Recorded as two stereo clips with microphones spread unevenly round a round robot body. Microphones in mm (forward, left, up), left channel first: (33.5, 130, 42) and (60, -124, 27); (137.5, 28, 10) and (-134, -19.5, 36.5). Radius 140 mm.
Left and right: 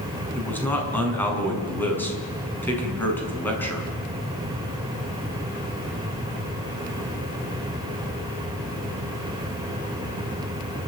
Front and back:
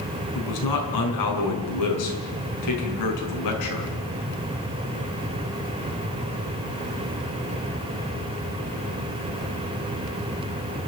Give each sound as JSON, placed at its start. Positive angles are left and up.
{"t": 0.3, "sound": "a man speaking", "azimuth_deg": 15, "distance_m": 5.5}